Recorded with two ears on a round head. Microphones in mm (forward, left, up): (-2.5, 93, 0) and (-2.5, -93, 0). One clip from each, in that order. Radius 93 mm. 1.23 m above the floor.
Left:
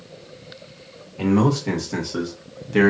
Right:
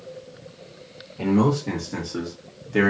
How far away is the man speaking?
About 1.7 m.